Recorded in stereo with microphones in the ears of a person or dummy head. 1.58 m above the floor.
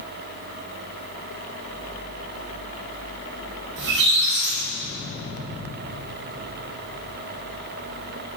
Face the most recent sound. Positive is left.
turn(degrees=-65)  # may be behind; listen again after turning